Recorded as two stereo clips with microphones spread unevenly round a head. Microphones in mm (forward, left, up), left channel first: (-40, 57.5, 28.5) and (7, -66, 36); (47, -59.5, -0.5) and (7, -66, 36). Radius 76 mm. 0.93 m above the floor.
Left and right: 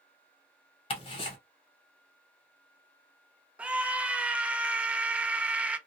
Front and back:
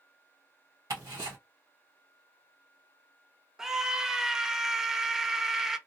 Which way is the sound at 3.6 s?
10° left.